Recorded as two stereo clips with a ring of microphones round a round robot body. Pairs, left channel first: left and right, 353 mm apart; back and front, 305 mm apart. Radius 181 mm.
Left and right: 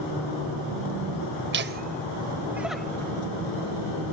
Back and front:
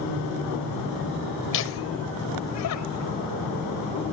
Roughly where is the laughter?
Behind right.